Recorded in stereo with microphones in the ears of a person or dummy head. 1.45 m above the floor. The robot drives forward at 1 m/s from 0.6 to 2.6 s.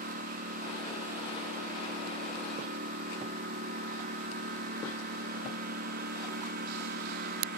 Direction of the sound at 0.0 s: 50° right (ahead or behind).